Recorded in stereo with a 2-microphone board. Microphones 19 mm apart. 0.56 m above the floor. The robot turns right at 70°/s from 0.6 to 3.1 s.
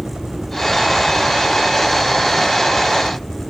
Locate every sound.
0.0 s a helicopter: 75° right; by 3.5 s 100° left